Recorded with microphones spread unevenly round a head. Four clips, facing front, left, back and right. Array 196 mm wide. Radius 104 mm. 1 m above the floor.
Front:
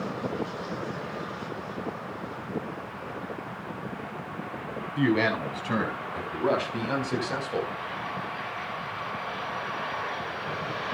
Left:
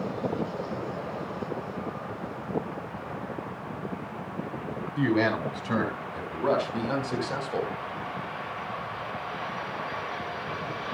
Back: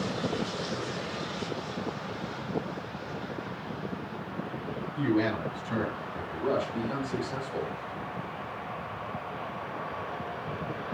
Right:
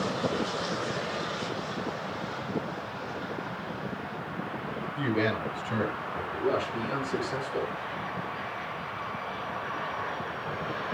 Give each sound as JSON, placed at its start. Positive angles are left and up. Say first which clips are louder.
{"t": 5.0, "sound": "a man speaking", "louder": "left 4 dB, front 3 dB", "azimuth_deg": 30, "distance_m": 7.5}